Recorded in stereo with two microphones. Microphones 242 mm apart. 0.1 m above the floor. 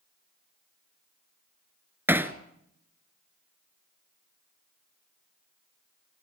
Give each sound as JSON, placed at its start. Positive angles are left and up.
{"t": 2.1, "sound": "hammering", "side_deg": -10, "distance_m": 1.3}